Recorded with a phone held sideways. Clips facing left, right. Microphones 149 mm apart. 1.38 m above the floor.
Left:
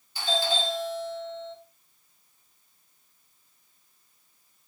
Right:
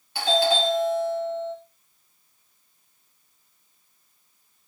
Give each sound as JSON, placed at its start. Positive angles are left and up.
{"t": 0.1, "sound": "a doorbell", "side_deg": -70, "distance_m": 3.5}